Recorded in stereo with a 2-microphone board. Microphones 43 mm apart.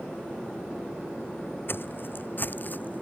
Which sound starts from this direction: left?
Footsteps, at 1.7 s.